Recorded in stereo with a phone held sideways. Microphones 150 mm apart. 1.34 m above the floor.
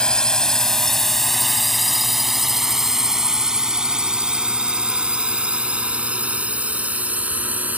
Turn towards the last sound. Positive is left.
turn(degrees=-10)  # may be behind; listen again after turning